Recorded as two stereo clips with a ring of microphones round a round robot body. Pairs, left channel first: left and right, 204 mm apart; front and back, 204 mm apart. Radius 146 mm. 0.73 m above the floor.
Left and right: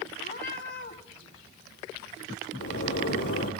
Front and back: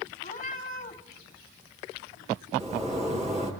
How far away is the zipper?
About 8.5 m.